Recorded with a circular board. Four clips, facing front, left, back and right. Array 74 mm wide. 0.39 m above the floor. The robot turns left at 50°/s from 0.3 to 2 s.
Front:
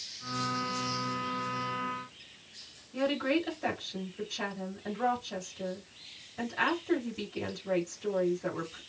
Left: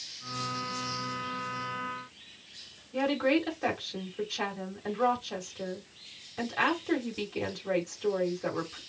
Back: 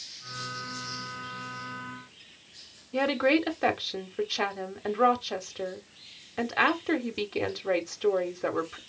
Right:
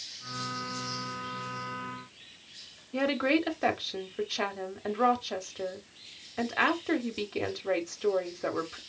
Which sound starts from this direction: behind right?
A woman speaking, at 2.9 s.